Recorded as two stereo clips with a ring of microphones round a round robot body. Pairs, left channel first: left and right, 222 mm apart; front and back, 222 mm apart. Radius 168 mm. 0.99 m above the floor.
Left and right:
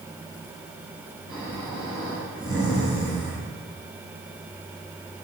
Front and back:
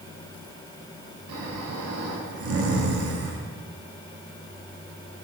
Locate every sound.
1.3 s snoring: 170° left, 1.4 m